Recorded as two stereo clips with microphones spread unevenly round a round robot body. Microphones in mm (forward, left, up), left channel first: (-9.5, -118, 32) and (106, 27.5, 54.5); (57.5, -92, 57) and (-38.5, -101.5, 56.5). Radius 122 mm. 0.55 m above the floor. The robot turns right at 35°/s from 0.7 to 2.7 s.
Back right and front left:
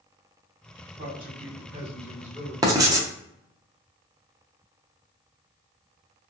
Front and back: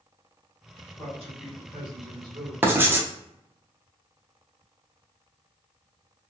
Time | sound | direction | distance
1.0 | a man speaking | 80° left | 1.6 m
2.6 | writing | 125° left | 0.6 m